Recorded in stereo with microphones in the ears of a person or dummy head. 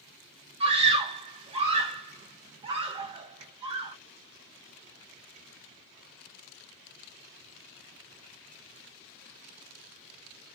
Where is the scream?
25° right (ahead or behind), 0.9 m.